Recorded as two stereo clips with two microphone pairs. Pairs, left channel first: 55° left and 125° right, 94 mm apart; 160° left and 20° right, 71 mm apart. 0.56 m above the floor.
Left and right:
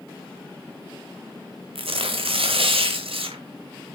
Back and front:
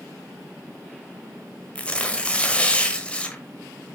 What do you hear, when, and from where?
1.8 s tearing paper: 125° right, 1.2 m